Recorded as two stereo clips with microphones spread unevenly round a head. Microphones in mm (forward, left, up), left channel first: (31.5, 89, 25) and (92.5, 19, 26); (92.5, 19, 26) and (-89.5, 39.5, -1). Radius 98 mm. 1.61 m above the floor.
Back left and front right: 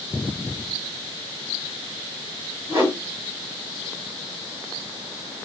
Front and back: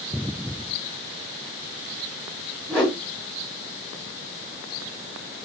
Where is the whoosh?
65° right, 1.4 m.